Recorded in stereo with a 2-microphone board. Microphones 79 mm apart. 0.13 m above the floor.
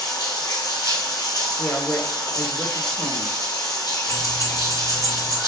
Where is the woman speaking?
25° left (ahead or behind), 1.2 m.